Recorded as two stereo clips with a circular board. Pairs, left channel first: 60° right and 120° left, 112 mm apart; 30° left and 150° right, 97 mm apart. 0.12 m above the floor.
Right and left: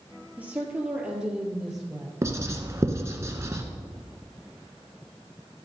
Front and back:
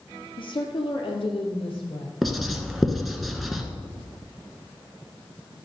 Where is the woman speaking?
45° left, 2.5 m; by 2.1 s 30° left, 3.5 m.